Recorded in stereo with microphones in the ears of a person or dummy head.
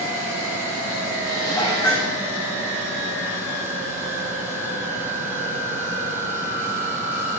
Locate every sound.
1.2 s dishes clattering: 20° left (ahead or behind), 1.7 m